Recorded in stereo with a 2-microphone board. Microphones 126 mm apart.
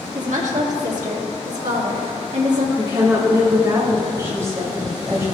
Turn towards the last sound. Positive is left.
turn(degrees=-25)  # may be behind; listen again after turning